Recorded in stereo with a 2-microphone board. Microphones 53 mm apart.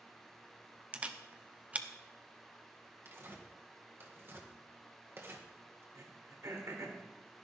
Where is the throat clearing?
70° right (ahead or behind), 2.5 m.